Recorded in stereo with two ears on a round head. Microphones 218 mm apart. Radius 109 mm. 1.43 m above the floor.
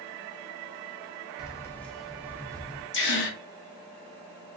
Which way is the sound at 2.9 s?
50° left (ahead or behind).